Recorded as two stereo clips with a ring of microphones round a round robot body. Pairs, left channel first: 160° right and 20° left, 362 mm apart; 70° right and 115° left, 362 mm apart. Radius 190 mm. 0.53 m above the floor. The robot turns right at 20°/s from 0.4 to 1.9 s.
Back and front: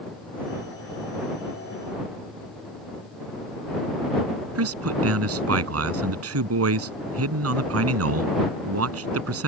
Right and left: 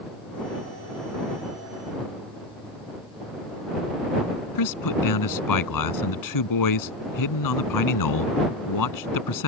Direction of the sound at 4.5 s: 30° right.